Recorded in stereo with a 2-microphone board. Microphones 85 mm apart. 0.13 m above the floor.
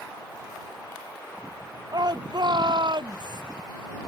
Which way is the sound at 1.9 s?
50° right (ahead or behind).